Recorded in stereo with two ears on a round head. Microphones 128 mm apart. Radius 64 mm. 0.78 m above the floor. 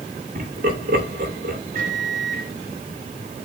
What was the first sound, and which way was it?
Laughter, 65° right (ahead or behind).